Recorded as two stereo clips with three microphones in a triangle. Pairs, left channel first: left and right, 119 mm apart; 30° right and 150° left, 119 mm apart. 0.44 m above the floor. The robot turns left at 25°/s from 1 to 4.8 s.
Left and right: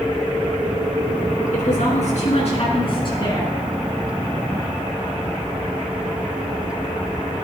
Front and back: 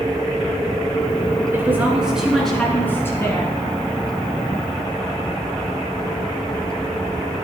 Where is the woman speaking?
80° left, 5 m; by 3.5 s 30° left, 5 m.